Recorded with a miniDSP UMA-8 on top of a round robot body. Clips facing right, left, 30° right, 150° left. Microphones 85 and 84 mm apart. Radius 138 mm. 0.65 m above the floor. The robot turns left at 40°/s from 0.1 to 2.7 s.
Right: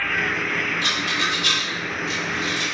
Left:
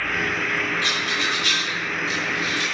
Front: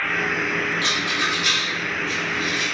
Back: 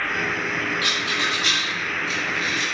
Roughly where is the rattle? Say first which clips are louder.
Even, front 1 dB; right.